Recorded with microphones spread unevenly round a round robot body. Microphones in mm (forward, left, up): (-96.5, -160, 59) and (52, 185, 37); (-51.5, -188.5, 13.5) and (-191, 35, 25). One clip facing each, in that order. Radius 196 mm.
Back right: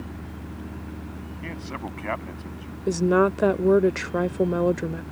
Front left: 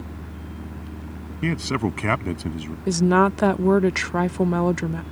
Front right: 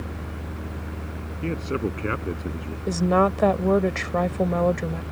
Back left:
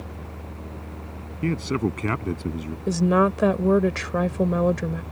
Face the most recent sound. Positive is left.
turn(degrees=60)